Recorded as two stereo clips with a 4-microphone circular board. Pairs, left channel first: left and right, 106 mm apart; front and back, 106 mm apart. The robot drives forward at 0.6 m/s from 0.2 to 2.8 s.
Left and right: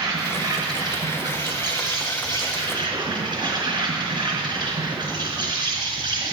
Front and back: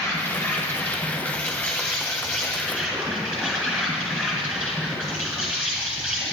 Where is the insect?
60° right, 3 m; by 6.3 s 100° right, 3 m.